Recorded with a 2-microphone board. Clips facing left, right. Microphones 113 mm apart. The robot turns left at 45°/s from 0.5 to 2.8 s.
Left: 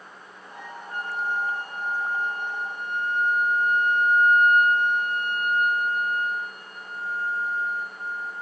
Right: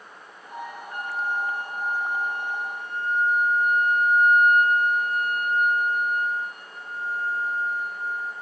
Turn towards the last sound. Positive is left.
turn(degrees=-150)